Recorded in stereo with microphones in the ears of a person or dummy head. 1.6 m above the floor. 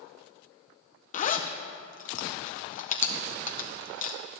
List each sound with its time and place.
1.1 s a zipper: 30° left (ahead or behind), 0.6 m